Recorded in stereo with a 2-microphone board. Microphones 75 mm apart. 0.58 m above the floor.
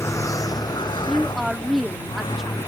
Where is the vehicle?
40° left (ahead or behind); by 2.7 s 70° left (ahead or behind).